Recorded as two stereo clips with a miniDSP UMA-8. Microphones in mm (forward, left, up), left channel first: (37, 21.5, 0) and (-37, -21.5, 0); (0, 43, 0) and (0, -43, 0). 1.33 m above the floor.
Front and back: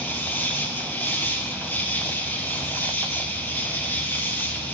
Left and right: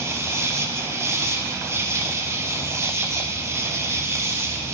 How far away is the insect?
About 3 m.